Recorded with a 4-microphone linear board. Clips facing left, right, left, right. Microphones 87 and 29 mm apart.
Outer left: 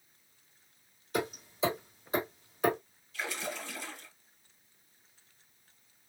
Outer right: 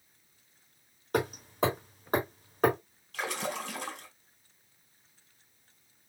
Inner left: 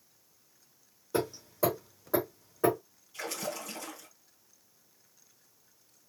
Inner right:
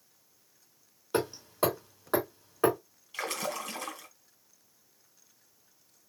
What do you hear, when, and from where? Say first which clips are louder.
1.1 s hammering: outer right 4 dB, inner right 1 dB; 55° right (ahead or behind), 3 m
3.1 s a splash: outer right 4 dB, inner right 3 dB; 75° right (ahead or behind), 1.6 m